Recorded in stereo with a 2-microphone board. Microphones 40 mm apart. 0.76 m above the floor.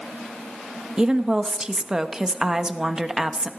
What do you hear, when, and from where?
1.0 s a woman speaking: 20° right (ahead or behind), 1.0 m